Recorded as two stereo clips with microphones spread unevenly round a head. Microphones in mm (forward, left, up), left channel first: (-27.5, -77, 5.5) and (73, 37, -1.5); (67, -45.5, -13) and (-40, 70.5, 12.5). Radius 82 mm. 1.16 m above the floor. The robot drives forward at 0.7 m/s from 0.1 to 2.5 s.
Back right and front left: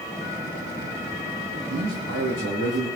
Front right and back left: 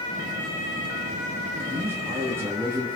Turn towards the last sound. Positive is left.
turn(degrees=55)